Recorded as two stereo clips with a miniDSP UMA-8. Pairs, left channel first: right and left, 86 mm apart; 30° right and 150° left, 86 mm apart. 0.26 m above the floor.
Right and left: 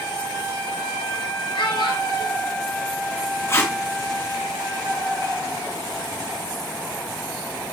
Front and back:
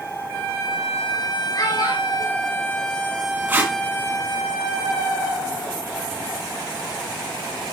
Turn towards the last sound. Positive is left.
turn(degrees=-140)